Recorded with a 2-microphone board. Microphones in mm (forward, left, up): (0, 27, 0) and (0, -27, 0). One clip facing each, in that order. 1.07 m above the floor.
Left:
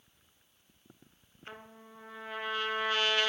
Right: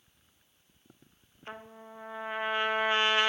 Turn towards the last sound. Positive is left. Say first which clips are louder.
# right 4 dB
turn(degrees=-25)  # may be behind; listen again after turning